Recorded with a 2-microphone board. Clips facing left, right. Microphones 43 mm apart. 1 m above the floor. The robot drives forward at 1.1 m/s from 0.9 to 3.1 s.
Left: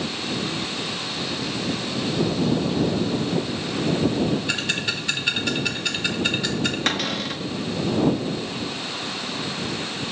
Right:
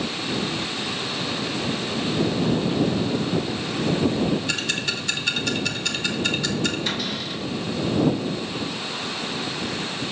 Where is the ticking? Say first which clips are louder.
Left 1 dB; 15° left (ahead or behind), 1.2 m.